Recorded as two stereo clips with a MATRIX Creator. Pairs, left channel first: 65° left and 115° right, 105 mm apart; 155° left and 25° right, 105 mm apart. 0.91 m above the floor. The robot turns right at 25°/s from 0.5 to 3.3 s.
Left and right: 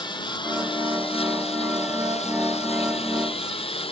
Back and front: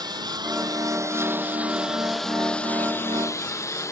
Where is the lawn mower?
25° left; by 3.9 s 95° left.